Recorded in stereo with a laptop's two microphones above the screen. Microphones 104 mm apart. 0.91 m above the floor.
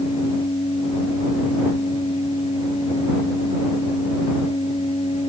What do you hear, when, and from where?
0.0 s a machine running: 70° left (ahead or behind)